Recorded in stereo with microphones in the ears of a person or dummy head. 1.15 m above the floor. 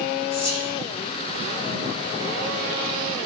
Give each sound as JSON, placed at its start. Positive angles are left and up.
{"t": 0.3, "sound": "whispering", "side_deg": 35, "distance_m": 4.0}